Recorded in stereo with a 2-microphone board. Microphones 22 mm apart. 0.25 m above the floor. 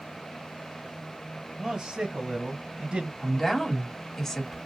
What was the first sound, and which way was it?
A man speaking, 25° right (ahead or behind).